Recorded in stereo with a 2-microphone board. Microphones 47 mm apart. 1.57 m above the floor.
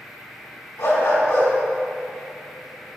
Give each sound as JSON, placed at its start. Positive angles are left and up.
{"t": 0.8, "sound": "a dog barking", "side_deg": 70, "distance_m": 4.5}